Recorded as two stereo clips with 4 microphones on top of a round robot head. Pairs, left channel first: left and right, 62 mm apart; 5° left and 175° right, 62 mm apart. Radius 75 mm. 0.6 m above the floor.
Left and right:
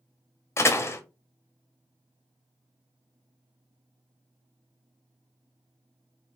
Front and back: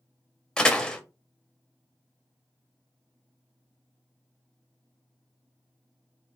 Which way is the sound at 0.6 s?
75° left.